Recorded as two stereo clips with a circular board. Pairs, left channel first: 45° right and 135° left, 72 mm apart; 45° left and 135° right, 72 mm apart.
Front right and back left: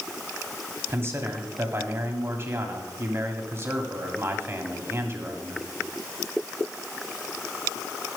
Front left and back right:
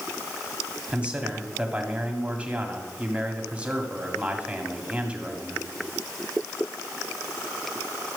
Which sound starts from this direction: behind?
A man speaking, at 0.9 s.